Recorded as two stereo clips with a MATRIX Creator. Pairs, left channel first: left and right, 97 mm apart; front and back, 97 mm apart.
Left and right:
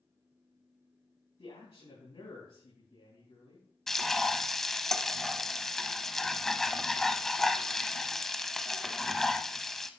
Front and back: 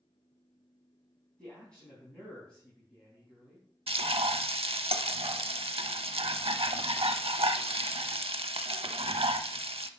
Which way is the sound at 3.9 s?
175° left.